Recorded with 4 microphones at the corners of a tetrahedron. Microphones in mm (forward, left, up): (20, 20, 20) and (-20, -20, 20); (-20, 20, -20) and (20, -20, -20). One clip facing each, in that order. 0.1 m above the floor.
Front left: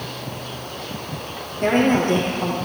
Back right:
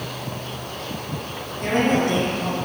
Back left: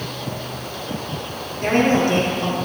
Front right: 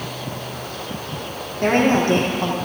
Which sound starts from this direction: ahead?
A woman speaking, at 1.6 s.